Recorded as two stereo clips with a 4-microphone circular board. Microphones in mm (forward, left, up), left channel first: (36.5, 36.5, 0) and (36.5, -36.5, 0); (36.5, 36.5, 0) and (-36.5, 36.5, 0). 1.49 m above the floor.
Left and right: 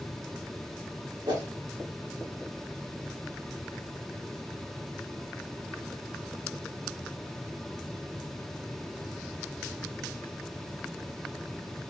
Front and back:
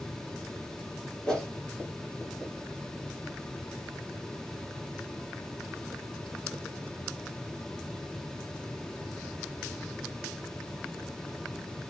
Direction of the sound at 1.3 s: 75° right.